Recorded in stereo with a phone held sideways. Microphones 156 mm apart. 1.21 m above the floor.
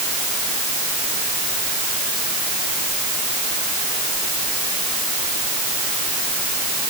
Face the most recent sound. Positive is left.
No sound to turn to.